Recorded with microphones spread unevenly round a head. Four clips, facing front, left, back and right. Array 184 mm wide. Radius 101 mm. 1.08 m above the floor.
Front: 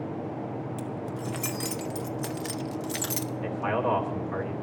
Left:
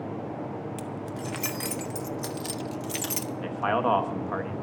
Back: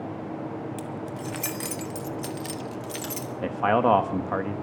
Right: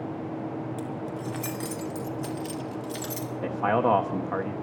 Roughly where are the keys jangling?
Left.